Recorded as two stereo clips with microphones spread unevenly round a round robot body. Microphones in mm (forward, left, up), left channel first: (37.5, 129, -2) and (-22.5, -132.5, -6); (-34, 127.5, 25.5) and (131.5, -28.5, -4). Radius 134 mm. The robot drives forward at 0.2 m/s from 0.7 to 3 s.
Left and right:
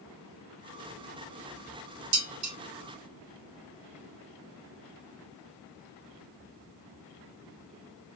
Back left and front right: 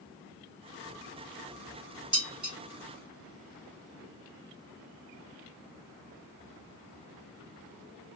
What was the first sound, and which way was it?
Dishes clattering, 130° right.